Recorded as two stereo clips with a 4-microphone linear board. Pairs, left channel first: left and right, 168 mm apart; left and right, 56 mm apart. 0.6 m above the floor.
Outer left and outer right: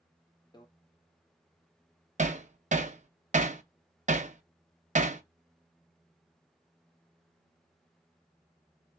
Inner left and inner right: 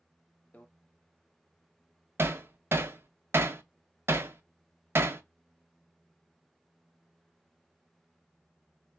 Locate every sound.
0.5 s a microwave: 30° left (ahead or behind), 0.5 m
2.2 s hammering: 50° right (ahead or behind), 0.5 m